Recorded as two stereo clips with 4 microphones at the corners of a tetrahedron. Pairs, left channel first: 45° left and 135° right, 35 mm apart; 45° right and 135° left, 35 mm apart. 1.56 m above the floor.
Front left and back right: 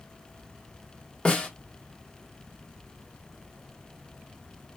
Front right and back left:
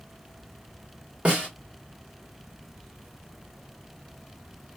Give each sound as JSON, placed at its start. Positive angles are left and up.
{"t": 1.2, "sound": "a snare drum", "azimuth_deg": 95, "distance_m": 1.4}